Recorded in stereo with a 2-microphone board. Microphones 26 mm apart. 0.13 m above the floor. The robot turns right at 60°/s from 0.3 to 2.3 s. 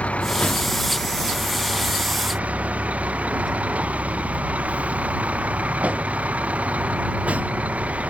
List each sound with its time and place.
0.0 s a vehicle: 125° left; by 8.1 s 115° right